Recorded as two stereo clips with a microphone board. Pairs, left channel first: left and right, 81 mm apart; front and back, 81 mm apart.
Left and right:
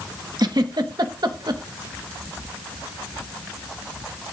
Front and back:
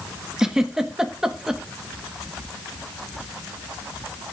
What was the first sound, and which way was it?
A giggle, 100° right.